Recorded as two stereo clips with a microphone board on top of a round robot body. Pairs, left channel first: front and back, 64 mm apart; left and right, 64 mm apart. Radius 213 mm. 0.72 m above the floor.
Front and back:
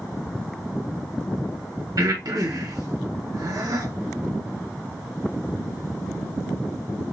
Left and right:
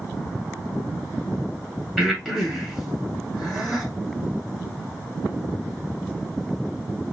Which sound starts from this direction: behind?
Breathing, at 2.0 s.